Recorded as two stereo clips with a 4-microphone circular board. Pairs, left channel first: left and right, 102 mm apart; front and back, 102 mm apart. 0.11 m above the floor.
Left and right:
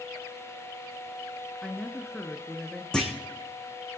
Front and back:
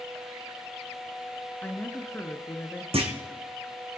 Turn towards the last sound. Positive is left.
turn(degrees=170)